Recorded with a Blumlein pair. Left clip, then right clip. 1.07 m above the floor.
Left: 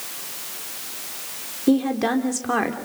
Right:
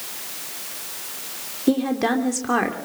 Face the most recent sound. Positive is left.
turn(degrees=0)